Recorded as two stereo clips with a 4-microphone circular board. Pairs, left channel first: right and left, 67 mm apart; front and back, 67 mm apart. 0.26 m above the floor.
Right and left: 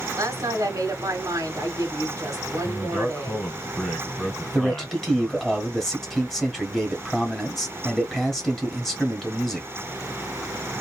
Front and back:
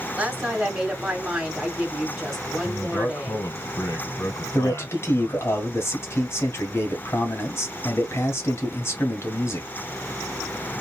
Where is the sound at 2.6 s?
10° right, 2 m.